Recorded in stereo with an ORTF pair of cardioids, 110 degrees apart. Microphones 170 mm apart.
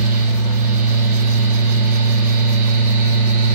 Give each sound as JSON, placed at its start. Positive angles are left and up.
{"t": 0.0, "sound": "a fan", "azimuth_deg": -50, "distance_m": 0.7}